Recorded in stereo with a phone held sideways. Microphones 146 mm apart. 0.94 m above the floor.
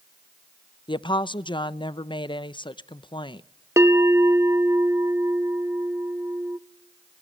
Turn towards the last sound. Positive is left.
turn(degrees=-20)  # may be behind; listen again after turning